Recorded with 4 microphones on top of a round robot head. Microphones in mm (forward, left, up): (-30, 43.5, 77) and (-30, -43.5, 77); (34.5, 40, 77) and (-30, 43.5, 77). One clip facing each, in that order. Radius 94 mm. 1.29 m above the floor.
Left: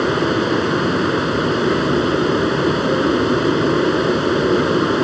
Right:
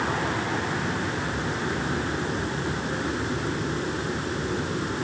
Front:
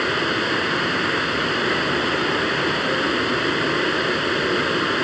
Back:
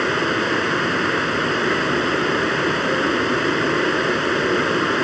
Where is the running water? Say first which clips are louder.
Left 10 dB, back 2 dB; 100° left.